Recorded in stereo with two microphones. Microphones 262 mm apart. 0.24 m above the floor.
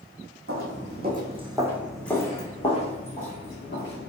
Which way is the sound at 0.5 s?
55° right (ahead or behind).